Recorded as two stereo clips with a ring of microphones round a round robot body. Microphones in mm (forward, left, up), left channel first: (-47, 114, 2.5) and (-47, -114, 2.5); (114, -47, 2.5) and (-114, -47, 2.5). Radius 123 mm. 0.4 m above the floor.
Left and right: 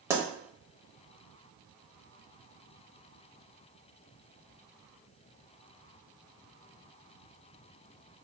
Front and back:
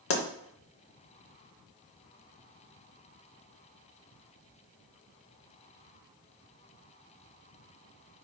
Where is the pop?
15° right, 0.7 m.